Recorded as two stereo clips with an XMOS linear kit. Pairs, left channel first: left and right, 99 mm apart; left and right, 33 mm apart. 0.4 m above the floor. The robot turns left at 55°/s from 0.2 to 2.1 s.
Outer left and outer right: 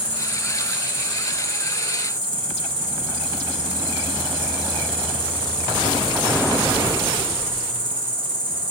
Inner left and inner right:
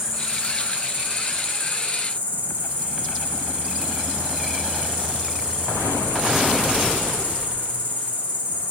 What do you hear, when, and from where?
0.0 s an insect: 15° right, 1.5 m; by 8.7 s 120° right, 1.5 m